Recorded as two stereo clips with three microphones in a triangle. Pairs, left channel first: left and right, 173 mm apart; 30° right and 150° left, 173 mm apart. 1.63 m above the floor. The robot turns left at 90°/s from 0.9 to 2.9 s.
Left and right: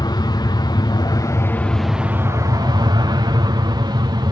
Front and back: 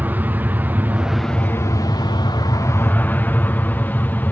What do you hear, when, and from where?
0.0 s an aircraft: 85° left; by 4.3 s 95° right